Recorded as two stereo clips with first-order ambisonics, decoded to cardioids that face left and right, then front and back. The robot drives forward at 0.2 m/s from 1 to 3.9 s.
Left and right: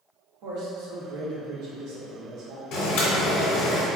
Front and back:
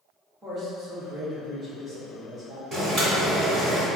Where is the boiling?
115° left, 1.2 m; by 3.9 s 125° left, 1.4 m.